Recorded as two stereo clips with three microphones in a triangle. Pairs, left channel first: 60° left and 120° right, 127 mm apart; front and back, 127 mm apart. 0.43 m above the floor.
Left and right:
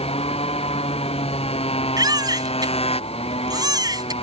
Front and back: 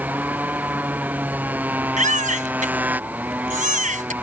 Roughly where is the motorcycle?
Left.